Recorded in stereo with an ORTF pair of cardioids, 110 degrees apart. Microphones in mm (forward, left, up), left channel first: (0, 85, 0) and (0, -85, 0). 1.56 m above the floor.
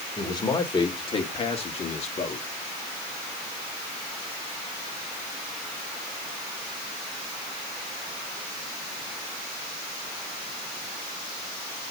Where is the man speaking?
25° left, 4 m; by 2.4 s 45° left, 3 m.